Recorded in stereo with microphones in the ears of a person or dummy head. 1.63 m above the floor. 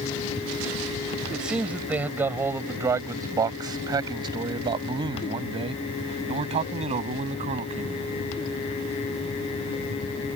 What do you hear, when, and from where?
1.3 s a man speaking: 5° right (ahead or behind); by 8.1 s 40° right (ahead or behind)